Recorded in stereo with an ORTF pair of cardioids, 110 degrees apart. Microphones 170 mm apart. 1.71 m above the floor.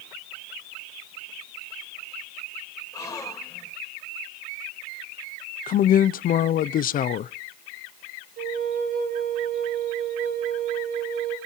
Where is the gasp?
20° left, 4.5 m.